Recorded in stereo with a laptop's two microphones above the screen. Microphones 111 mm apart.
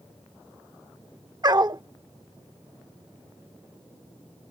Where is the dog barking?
35° right (ahead or behind).